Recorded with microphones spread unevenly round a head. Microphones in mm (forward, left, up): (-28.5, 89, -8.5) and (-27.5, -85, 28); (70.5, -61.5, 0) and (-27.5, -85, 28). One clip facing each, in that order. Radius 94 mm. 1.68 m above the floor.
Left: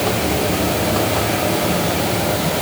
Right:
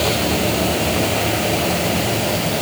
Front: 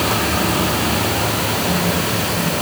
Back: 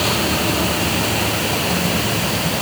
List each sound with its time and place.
Only background noise.